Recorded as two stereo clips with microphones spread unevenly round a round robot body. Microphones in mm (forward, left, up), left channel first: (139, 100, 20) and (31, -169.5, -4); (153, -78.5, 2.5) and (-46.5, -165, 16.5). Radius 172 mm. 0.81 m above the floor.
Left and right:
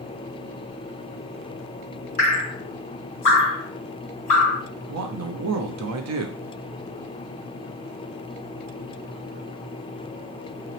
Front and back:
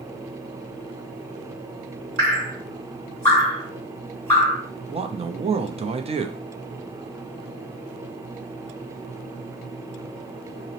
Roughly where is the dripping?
Behind left.